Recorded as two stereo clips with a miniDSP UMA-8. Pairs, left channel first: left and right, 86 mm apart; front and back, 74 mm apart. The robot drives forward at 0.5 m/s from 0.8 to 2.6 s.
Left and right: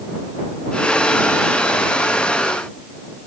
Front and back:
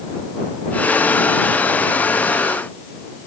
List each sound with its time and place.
Only background noise.